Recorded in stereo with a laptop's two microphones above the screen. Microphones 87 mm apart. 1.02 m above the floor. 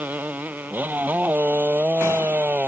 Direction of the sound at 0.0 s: 20° right (ahead or behind).